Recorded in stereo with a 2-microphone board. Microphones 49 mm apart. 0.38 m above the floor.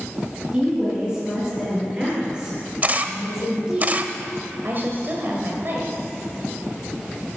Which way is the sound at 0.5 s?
15° right (ahead or behind).